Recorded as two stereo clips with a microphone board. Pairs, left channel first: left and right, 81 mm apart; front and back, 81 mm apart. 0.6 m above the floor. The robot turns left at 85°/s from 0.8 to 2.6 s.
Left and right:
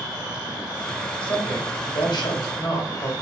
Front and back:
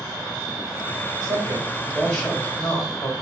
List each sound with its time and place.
1.2 s a woman speaking: 170° left, 3 m; by 3.1 s 50° left, 3 m